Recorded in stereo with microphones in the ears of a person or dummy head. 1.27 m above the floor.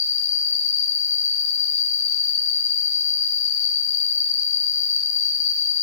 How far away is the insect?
About 1.2 m.